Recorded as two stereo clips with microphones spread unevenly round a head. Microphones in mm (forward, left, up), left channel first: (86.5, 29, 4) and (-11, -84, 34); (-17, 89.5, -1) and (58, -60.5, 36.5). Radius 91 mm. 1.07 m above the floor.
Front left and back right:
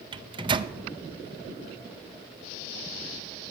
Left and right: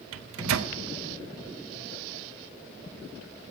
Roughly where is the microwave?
Right.